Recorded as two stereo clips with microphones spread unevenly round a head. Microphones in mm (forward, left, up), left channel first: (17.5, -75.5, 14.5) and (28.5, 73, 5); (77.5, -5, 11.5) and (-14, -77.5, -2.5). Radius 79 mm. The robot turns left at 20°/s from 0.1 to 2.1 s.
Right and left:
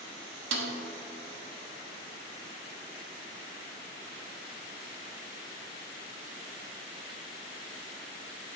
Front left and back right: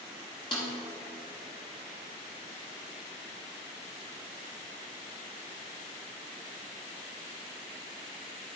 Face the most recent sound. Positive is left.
turn(degrees=65)